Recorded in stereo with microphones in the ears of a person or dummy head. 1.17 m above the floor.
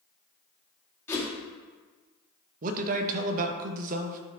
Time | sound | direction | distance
1.1 | a whoosh | 15° left (ahead or behind) | 2 m
2.6 | a man speaking | 45° right (ahead or behind) | 0.9 m